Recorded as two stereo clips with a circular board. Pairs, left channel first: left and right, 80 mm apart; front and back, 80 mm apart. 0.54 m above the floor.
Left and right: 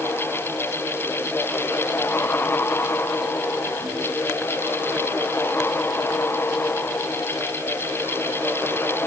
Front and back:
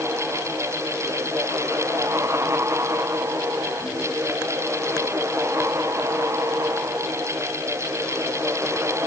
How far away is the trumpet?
I don't hear a trumpet.